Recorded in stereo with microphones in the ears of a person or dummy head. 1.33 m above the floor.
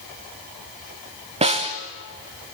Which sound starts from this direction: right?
A snare drum, at 1.4 s.